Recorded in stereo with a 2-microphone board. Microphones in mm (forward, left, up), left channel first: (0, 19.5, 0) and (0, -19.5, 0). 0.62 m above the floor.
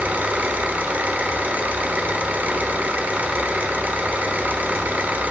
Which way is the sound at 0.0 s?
50° right (ahead or behind).